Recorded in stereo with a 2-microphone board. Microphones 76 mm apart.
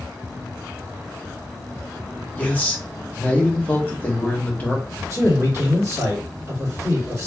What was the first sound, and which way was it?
A man speaking, 20° left (ahead or behind).